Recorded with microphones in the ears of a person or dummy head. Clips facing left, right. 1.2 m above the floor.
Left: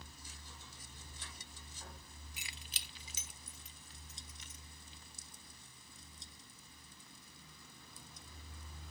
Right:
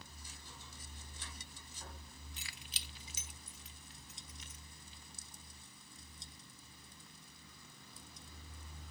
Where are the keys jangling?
10° left (ahead or behind); by 4.6 s 80° left.